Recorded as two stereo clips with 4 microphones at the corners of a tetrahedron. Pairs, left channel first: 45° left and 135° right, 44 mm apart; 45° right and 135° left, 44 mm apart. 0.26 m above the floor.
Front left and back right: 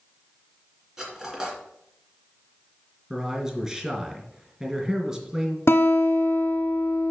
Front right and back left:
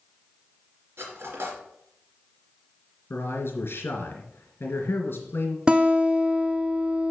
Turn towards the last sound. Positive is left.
turn(degrees=65)